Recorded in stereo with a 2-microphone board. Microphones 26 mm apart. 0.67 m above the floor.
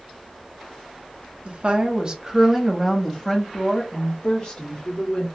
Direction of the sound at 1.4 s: 45° right (ahead or behind).